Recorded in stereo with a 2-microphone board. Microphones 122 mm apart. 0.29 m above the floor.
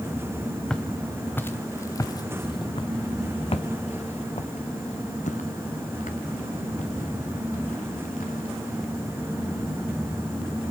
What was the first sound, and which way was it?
Footsteps, 5° left (ahead or behind).